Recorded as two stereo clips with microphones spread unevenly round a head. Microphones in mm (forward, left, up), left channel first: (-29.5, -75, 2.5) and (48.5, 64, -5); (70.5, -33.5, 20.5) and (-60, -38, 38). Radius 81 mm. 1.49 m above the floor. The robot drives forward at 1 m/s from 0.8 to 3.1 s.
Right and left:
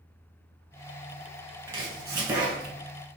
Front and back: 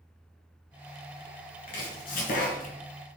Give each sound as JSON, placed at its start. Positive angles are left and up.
{"t": 1.7, "sound": "chopping", "azimuth_deg": -5, "distance_m": 2.0}